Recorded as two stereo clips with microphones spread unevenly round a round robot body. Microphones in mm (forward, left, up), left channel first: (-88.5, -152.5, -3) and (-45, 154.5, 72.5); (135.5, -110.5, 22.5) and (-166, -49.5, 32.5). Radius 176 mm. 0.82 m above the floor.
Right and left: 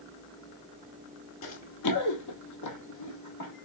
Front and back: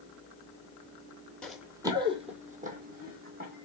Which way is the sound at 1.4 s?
100° right.